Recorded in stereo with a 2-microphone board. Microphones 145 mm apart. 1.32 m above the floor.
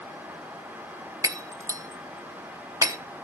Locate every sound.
1.2 s breaking glass: 20° right (ahead or behind), 0.8 m